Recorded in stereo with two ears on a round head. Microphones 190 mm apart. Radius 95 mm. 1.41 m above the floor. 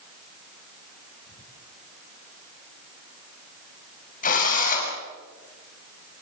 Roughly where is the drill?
Left.